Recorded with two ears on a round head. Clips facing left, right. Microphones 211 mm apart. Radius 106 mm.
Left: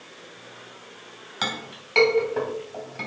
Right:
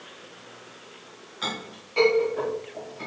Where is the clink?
80° left, 3 m.